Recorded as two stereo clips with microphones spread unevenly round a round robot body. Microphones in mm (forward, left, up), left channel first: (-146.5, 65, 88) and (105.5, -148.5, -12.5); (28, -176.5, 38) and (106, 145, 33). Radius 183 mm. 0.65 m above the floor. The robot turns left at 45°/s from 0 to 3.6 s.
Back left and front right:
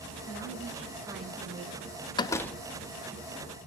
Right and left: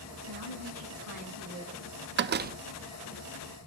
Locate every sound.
0.3 s a woman speaking: 80° left, 6.5 m; by 1.9 s 10° left, 6.5 m
2.2 s a door slam: 45° left, 0.7 m; by 2.6 s 30° left, 0.7 m